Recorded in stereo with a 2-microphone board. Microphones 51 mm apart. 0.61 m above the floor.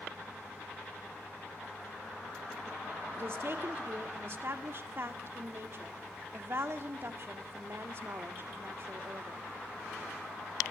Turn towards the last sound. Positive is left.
turn(degrees=-50)  # may be behind; listen again after turning